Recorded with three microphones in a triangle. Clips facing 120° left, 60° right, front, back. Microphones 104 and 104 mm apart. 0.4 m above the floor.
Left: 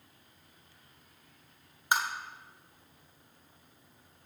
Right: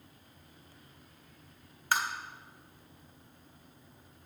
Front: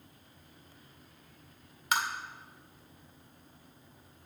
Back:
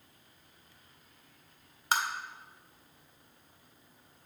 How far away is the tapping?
About 0.8 m.